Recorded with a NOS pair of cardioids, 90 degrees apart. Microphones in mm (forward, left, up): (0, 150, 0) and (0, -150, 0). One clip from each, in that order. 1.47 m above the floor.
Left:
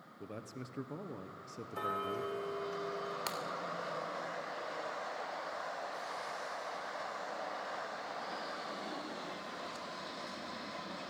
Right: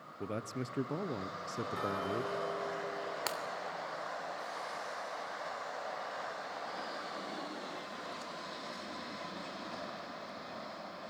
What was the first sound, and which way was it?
A man speaking, 35° right.